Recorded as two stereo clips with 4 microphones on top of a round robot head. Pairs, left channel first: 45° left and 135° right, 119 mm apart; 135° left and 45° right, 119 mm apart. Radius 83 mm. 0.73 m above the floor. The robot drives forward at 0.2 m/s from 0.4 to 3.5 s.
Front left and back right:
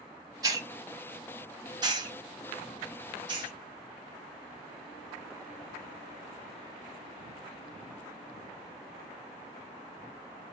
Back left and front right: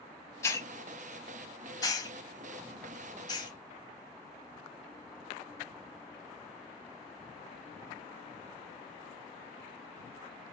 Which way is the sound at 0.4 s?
170° right.